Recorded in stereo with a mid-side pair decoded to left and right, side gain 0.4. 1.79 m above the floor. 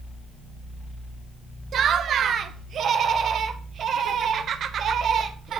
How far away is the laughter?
About 1.6 m.